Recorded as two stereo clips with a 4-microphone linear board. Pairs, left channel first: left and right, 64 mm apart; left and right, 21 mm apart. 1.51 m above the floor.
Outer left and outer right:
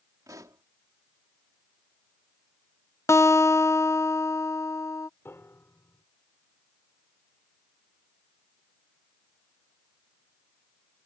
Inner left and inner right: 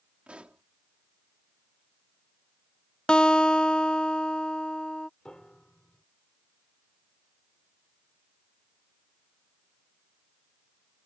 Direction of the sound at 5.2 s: 40° left (ahead or behind).